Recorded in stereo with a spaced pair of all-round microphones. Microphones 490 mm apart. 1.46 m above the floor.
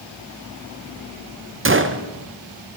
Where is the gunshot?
25° right (ahead or behind), 0.6 m.